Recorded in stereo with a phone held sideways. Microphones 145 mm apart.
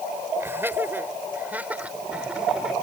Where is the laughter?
15° right (ahead or behind); by 2.7 s 5° right (ahead or behind).